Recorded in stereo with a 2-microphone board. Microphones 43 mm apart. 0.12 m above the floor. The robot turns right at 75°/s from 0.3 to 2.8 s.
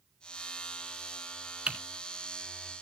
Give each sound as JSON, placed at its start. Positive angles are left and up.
{"t": 1.7, "sound": "typing on a keyboard", "side_deg": -20, "distance_m": 1.6}